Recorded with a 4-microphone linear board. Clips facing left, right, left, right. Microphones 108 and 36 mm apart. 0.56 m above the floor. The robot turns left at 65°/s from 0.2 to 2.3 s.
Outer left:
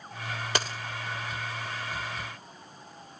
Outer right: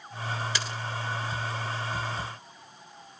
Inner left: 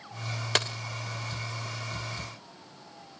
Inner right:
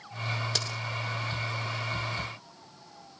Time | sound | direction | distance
0.6 | a dropped coin | 50° left (ahead or behind) | 0.9 m